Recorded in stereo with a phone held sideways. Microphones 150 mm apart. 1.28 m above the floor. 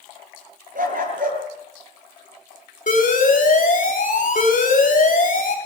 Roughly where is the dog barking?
Right.